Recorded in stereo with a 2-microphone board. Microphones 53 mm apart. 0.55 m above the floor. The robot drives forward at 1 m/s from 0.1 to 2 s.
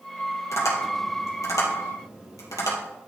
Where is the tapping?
65° left (ahead or behind), 3.5 m; by 2.8 s 85° left, 3 m.